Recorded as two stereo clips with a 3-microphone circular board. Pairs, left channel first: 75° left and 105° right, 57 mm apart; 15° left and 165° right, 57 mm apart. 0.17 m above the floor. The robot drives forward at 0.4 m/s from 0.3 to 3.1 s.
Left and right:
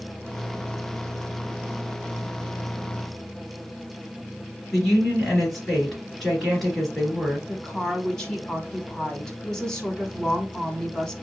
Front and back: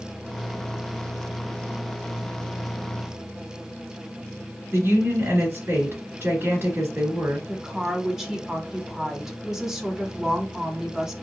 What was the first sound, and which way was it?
A woman speaking, 160° left.